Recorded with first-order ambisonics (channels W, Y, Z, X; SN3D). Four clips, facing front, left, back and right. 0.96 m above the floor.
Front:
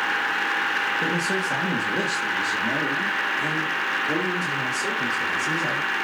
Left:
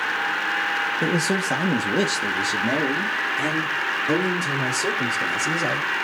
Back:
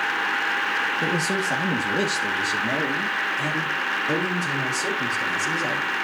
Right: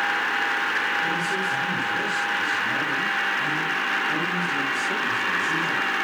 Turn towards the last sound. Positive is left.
turn(degrees=95)